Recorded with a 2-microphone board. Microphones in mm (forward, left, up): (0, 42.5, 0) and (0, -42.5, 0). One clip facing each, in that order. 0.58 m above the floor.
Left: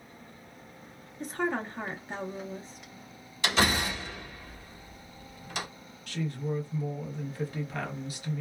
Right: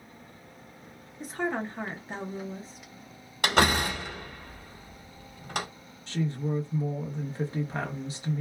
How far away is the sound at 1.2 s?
About 0.6 m.